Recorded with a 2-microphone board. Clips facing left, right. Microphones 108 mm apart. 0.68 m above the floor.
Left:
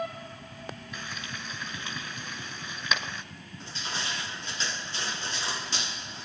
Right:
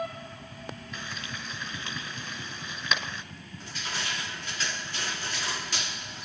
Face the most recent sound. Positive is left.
turn(degrees=25)  # may be behind; listen again after turning